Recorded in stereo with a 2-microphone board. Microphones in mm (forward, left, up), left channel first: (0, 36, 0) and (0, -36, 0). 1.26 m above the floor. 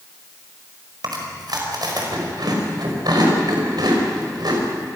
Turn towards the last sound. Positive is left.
turn(degrees=-75)  # may be behind; listen again after turning